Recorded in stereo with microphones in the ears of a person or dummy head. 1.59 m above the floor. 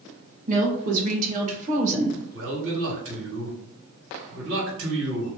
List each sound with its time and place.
0.5 s a woman speaking: 45° right (ahead or behind), 1.7 m
2.3 s a man speaking: 70° right (ahead or behind), 1.8 m